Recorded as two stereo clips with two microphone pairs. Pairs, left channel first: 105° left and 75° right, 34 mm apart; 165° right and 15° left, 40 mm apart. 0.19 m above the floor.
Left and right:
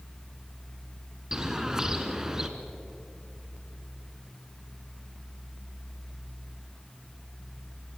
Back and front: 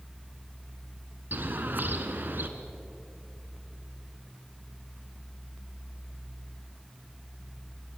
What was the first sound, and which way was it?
A bird, straight ahead.